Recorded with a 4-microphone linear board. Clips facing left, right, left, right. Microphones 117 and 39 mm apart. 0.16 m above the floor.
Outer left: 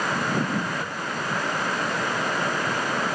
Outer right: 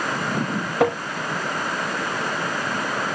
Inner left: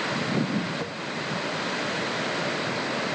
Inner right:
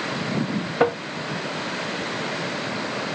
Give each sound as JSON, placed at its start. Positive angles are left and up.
{"t": 0.8, "sound": "tapping", "side_deg": -85}